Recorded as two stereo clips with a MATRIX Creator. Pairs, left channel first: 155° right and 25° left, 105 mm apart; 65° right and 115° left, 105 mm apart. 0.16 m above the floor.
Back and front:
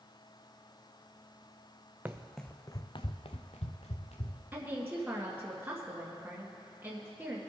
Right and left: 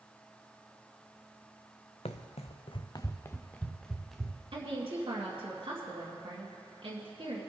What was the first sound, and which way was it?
Running footsteps, 50° right.